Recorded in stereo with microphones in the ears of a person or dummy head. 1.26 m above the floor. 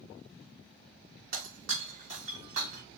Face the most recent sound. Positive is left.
turn(degrees=-55)  # may be behind; listen again after turning